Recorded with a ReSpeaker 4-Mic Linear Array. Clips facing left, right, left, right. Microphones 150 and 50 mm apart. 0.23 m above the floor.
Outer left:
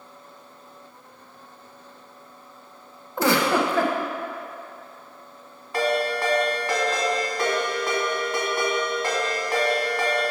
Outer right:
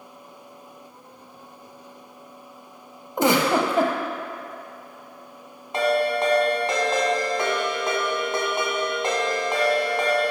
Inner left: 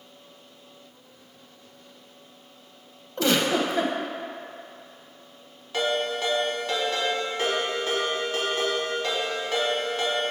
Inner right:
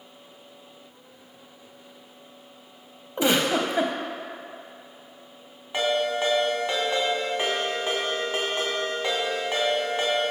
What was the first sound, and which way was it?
A giggle, 20° right (ahead or behind).